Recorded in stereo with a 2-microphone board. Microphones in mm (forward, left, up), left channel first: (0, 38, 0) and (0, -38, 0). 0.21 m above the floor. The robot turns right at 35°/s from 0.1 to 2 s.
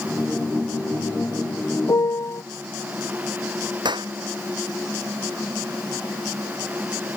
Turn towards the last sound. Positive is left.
turn(degrees=-85)